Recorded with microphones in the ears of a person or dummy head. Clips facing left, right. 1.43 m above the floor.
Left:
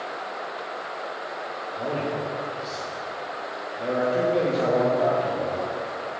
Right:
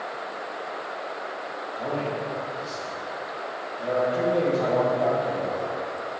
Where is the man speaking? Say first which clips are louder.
Left 1 dB; 20° left (ahead or behind), 1.6 m.